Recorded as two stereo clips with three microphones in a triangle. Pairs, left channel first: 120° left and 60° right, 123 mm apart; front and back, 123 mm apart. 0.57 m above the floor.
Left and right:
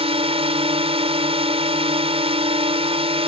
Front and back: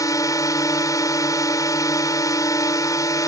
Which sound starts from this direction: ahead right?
A drone, at 0.0 s.